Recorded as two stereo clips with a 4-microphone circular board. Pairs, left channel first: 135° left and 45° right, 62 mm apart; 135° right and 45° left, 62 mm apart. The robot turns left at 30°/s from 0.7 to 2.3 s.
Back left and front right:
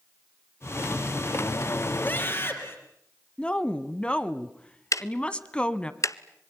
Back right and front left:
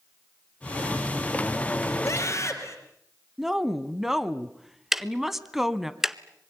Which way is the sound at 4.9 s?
130° left.